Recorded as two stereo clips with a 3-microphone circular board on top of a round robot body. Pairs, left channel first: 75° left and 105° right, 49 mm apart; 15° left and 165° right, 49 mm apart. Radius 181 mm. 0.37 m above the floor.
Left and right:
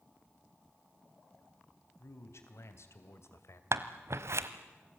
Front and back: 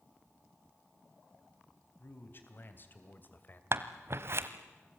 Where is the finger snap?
I don't hear a finger snap.